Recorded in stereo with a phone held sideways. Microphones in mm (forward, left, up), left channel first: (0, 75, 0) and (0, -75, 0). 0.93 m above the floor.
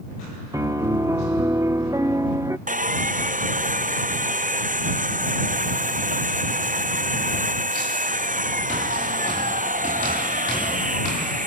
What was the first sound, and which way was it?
A piano, 20° right (ahead or behind).